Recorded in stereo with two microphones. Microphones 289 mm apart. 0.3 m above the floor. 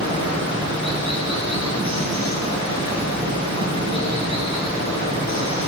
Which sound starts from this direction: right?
Running water, at 0.0 s.